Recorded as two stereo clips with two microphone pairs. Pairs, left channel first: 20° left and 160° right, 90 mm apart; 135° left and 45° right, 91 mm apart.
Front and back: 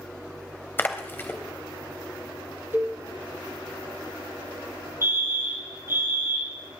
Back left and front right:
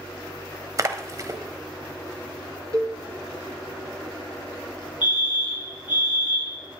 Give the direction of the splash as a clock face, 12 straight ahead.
1 o'clock.